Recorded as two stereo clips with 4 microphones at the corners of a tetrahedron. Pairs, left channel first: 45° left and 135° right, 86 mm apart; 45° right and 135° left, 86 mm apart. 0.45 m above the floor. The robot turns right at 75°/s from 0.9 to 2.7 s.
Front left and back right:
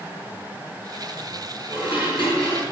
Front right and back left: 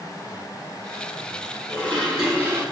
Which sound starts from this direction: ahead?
Dishes clattering, at 1.7 s.